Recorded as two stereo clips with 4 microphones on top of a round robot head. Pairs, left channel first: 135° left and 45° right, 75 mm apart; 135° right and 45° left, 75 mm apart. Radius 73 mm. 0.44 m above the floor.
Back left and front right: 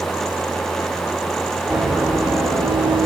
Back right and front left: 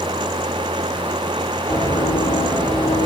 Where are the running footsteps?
115° right, 5.5 m; by 3.1 s 110° right, 4.5 m.